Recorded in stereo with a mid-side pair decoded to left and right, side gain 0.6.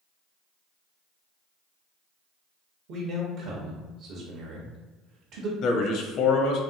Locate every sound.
2.9 s a man speaking: 65° right, 0.8 m
5.6 s a man speaking: 60° left, 0.7 m